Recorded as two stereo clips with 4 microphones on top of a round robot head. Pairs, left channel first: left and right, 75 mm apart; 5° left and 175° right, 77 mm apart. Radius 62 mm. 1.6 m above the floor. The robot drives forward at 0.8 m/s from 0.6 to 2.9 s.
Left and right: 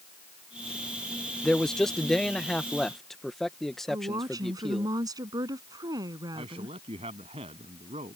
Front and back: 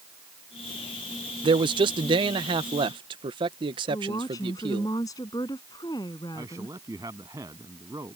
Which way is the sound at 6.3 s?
115° right.